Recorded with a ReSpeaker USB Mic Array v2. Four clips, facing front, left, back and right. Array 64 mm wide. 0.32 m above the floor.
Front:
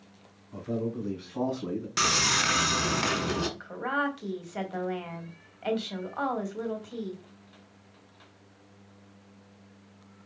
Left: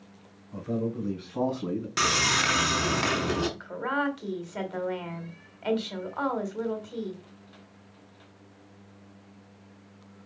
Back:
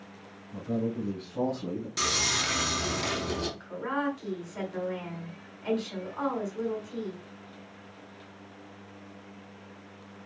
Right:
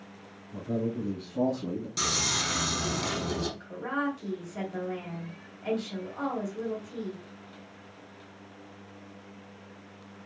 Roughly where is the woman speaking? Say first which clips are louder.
Left 3 dB, front 1 dB; ahead left.